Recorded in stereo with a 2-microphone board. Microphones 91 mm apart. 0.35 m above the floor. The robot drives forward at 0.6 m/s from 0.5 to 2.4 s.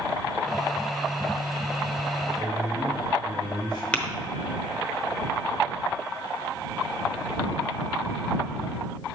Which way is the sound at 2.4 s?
50° left (ahead or behind).